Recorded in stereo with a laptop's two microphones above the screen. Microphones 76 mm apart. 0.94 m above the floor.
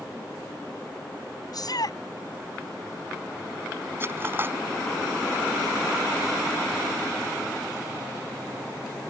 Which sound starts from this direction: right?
Cutlery clinking, at 4.0 s.